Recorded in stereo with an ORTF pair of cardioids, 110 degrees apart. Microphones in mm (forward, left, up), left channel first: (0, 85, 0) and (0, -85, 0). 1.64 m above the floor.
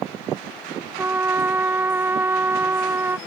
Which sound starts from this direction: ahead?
A trumpet, at 1.0 s.